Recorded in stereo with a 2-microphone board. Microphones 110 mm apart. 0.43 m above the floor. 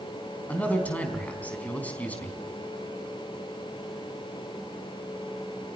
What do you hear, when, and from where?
0.5 s a man speaking: 15° left (ahead or behind), 4 m